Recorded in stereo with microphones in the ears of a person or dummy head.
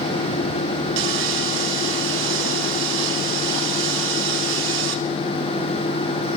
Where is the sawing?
80° right, 3.5 m.